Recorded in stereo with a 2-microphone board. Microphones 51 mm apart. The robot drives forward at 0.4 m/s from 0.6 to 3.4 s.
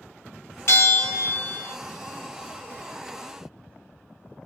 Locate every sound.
0.7 s a bell: 50° left (ahead or behind), 0.8 m; by 1.8 s 40° left (ahead or behind), 1.0 m